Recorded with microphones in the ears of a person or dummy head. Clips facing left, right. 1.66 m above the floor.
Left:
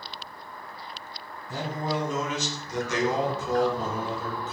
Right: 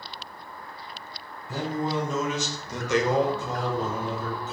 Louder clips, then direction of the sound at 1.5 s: Right 2 dB; 80° right.